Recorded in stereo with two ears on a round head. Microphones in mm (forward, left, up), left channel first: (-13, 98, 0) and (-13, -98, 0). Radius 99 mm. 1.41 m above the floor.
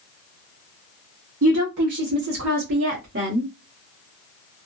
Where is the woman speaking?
70° right (ahead or behind), 0.7 m; by 3.5 s 55° right (ahead or behind), 1.4 m.